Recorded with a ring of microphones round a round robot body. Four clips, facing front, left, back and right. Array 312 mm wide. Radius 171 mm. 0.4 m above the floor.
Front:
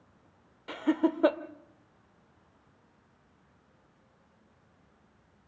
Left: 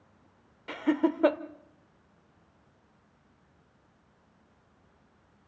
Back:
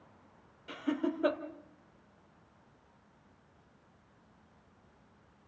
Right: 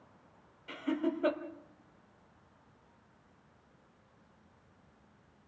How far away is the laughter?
About 1.6 m.